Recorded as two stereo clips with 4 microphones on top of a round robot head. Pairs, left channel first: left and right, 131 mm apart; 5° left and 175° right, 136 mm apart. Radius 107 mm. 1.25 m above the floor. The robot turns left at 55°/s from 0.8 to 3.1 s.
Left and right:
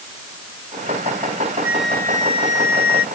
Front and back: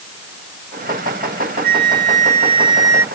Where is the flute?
170° right; by 3.0 s 115° left.